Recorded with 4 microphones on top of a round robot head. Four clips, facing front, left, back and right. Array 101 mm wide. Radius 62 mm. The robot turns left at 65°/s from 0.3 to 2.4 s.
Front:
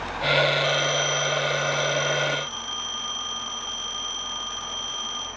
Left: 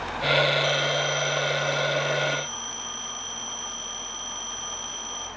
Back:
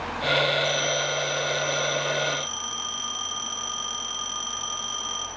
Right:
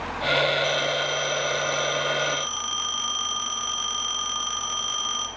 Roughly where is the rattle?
I don't hear a rattle.